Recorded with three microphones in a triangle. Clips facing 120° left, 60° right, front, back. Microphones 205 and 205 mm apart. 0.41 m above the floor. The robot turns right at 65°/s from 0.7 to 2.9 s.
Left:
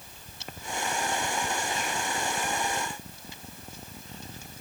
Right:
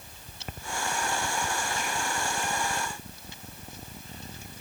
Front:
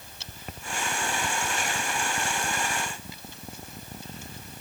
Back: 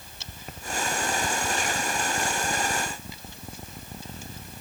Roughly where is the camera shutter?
I don't hear a camera shutter.